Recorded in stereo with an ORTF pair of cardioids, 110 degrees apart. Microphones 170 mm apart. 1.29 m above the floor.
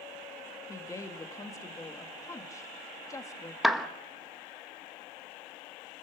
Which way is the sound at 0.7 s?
20° left.